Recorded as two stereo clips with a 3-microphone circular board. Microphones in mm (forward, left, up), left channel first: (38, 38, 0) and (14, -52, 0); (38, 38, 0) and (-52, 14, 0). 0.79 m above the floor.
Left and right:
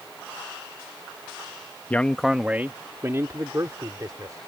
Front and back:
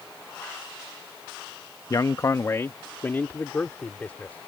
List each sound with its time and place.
1.9 s a man speaking: 15° left; by 4.4 s 60° right